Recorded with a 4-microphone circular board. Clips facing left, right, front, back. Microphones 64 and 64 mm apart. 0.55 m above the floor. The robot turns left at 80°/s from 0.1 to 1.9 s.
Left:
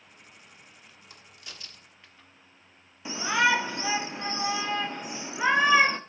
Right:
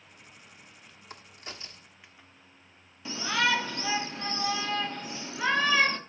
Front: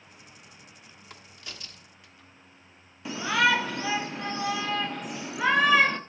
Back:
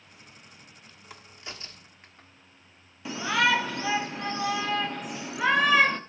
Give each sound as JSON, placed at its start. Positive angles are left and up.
{"t": 1.1, "sound": "a crack", "azimuth_deg": -100, "distance_m": 1.3}
{"t": 3.0, "sound": "a shout", "azimuth_deg": 95, "distance_m": 0.6}